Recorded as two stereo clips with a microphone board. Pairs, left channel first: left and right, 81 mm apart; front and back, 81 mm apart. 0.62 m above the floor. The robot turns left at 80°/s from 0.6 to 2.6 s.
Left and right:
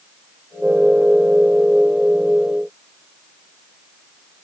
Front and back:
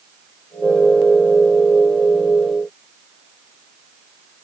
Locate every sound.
Only background noise.